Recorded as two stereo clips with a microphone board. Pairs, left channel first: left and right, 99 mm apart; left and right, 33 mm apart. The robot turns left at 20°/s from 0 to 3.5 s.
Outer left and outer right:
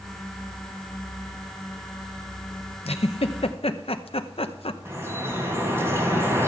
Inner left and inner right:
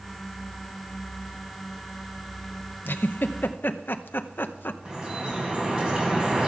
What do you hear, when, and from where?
2.9 s a giggle: 90° left, 0.7 m; by 4.8 s 75° left (ahead or behind), 0.7 m
4.8 s dripping: 25° right (ahead or behind), 3 m